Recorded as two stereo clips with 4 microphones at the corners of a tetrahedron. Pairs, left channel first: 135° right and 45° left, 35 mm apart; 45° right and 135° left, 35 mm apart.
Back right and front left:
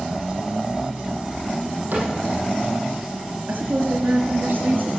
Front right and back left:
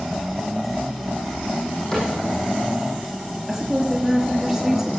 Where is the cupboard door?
25° left, 6.5 m.